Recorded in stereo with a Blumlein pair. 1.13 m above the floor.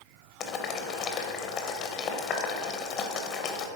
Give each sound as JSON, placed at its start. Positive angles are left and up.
{"t": 0.4, "sound": "boiling", "azimuth_deg": 30, "distance_m": 0.7}